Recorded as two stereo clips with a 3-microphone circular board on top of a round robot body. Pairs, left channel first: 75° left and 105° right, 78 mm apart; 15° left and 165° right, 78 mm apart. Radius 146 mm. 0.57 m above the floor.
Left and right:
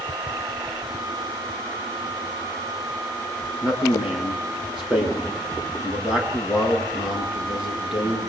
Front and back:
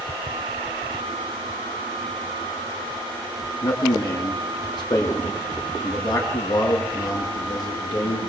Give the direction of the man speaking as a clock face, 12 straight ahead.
1 o'clock.